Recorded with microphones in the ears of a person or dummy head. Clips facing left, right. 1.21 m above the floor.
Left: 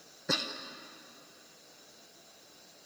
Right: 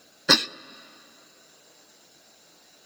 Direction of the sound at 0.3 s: 80° right.